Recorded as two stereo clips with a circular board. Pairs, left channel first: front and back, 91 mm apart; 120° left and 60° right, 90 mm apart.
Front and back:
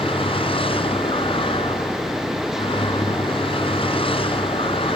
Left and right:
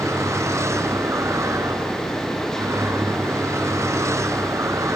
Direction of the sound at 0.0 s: Straight ahead.